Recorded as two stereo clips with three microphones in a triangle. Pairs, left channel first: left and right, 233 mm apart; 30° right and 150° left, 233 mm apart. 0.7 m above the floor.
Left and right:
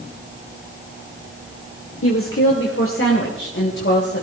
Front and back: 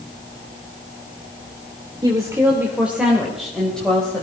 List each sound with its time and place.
2.0 s a woman speaking: 80° left, 1.9 m; by 4.2 s 55° left, 3.5 m